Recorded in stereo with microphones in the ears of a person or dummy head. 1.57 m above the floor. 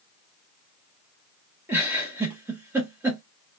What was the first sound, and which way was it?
A giggle, 15° right (ahead or behind).